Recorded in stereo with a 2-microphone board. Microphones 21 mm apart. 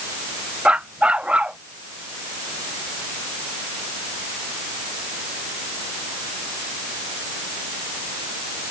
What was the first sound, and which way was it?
A dog barking, 85° right.